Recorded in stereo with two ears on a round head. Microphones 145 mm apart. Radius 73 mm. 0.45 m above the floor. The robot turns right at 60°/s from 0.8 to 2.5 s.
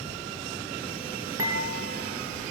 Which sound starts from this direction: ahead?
Dishes clattering, at 1.4 s.